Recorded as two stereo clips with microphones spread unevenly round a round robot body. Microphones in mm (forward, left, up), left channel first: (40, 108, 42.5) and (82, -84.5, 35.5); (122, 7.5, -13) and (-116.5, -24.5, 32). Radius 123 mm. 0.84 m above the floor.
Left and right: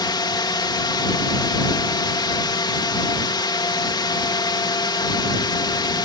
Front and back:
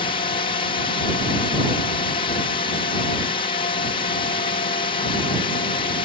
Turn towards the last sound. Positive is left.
turn(degrees=45)